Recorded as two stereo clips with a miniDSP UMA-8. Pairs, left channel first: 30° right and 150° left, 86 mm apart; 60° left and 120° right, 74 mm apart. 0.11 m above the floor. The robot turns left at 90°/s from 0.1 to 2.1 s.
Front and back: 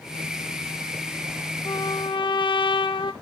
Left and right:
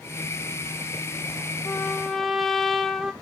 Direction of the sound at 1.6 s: 15° left.